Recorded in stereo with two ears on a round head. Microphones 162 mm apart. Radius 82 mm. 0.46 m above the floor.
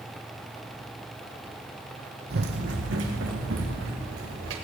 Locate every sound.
2.3 s running footsteps: 60° right (ahead or behind), 1.2 m; by 4.5 s 80° right, 4 m